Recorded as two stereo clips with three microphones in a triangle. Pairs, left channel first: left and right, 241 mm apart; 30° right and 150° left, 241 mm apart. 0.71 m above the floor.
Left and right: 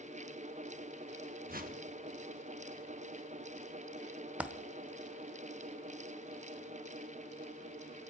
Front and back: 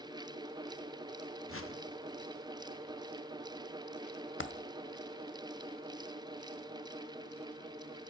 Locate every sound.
1.5 s a whoosh: 40° right, 0.9 m
4.4 s a dropped coin: 5° right, 0.6 m